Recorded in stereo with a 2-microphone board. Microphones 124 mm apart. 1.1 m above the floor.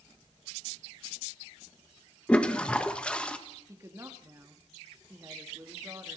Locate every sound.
2.3 s a toilet flushing: 10° left (ahead or behind), 1.4 m
3.7 s a woman speaking: 25° right (ahead or behind), 2.5 m